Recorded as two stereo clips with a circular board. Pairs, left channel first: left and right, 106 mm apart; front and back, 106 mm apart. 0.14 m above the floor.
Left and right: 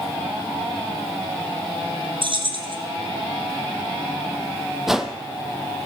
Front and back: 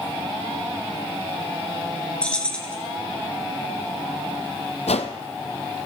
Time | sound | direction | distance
2.2 | keys jangling | 80° right | 1.6 m
4.9 | a whoosh | 5° right | 0.8 m